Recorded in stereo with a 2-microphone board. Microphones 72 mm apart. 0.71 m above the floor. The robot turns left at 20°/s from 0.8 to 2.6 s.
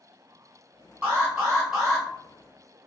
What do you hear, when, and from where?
1.0 s an alarm: 20° right (ahead or behind), 1.8 m; by 2.1 s 5° right (ahead or behind), 1.8 m